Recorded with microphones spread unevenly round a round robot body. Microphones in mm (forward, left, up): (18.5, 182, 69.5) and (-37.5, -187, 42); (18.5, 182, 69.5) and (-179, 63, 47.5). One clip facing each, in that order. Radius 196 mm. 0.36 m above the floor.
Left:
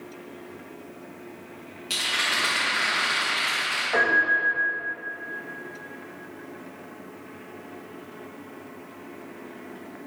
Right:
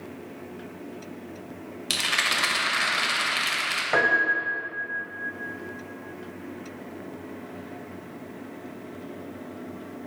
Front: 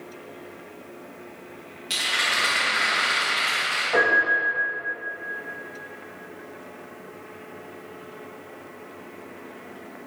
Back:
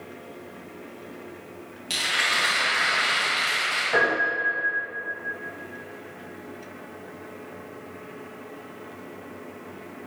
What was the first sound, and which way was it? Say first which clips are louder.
A rattle: right 1 dB, even; 65° right.